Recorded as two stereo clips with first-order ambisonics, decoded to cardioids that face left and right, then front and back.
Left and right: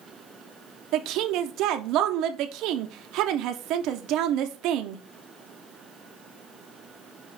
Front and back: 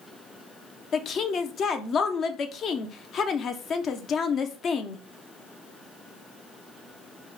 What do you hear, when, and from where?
0.9 s a woman speaking: 60° right, 0.5 m